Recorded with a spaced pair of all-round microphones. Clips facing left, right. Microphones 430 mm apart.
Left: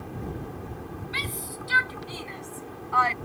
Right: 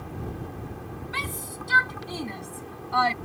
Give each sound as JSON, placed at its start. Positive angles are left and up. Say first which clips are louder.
{"t": 1.1, "sound": "a shout", "louder": "even", "side_deg": -65}